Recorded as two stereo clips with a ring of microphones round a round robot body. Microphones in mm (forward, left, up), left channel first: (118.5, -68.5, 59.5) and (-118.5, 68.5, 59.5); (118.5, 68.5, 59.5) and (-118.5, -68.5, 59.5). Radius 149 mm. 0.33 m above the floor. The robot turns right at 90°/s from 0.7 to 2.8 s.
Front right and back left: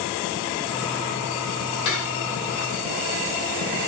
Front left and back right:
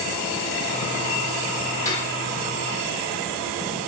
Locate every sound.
1.9 s cutlery clinking: 50° right, 8.5 m; by 2.2 s 20° right, 8.5 m